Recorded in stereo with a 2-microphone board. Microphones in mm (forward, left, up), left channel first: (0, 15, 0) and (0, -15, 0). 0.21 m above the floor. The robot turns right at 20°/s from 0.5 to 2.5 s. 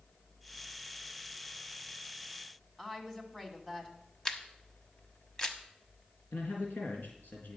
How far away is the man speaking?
About 4 m.